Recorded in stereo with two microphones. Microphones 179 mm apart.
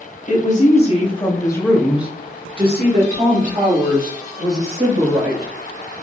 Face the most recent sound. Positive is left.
turn(degrees=-65)  # may be behind; listen again after turning